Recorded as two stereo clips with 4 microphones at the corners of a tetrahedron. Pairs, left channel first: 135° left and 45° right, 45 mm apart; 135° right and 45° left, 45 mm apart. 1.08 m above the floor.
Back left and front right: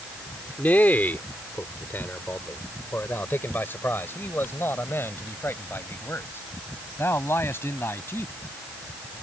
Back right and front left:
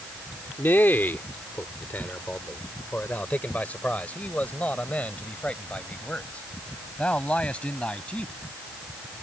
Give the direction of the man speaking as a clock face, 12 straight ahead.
6 o'clock.